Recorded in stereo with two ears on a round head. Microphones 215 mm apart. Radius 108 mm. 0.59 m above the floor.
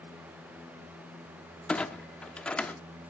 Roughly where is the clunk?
Centre.